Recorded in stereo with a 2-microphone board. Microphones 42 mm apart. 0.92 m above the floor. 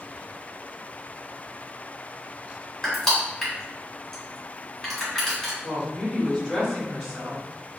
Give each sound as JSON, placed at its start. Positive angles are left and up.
{"t": 2.8, "sound": "crushing", "side_deg": 5, "distance_m": 1.8}
{"t": 5.6, "sound": "a woman speaking", "side_deg": 0, "distance_m": 1.6}